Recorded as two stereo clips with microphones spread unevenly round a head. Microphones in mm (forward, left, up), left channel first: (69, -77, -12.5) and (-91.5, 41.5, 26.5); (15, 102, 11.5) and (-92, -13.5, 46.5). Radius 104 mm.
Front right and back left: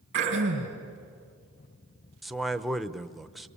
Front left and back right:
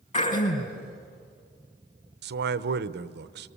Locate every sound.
0.1 s throat clearing: 90° left, 6 m
2.2 s a man speaking: 120° right, 0.8 m